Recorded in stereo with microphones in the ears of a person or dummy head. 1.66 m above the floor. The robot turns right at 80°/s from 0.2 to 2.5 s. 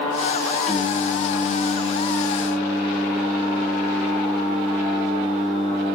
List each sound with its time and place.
0.7 s singing: 15° left, 1.3 m; by 6.0 s 160° left, 1.3 m